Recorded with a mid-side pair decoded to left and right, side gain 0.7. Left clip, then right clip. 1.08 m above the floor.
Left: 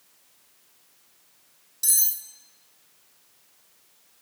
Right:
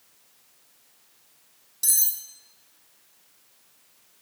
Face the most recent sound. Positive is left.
turn(degrees=-5)